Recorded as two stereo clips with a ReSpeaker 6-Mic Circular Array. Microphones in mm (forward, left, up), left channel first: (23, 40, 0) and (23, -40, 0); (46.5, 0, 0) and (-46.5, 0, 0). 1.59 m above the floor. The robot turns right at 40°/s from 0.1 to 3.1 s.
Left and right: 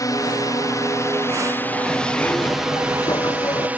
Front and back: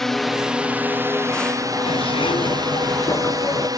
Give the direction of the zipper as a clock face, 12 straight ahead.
12 o'clock.